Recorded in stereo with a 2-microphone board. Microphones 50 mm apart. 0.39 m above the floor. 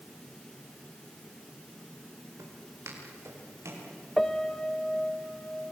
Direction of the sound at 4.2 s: 10° left (ahead or behind).